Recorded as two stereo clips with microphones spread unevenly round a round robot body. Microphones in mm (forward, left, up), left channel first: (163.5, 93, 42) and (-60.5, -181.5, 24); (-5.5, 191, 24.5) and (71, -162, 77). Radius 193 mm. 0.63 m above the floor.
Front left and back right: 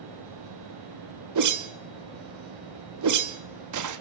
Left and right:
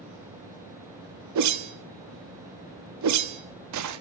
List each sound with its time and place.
1.4 s a whoosh: 120° right, 1.4 m